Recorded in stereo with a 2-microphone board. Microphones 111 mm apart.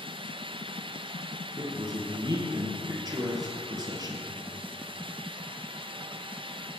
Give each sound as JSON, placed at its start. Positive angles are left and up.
{"t": 1.6, "sound": "a man speaking", "side_deg": -40, "distance_m": 2.5}